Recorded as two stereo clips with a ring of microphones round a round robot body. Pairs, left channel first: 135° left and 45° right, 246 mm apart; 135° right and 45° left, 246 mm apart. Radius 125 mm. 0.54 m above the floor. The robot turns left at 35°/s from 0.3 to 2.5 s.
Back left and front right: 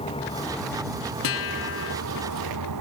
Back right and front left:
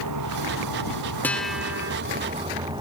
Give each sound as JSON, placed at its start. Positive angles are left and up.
{"t": 0.0, "sound": "a vehicle", "azimuth_deg": 65}
{"t": 1.2, "sound": "a guitar", "azimuth_deg": 145}